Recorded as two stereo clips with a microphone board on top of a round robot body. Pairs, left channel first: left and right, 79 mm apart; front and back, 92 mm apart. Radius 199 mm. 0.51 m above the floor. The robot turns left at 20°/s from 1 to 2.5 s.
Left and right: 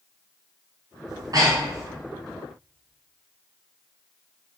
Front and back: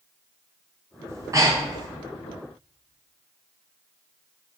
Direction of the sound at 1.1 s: 120° right.